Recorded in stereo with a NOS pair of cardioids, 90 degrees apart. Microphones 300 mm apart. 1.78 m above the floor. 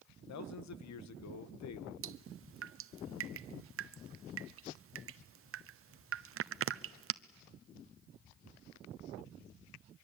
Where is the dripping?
45° right, 0.8 m.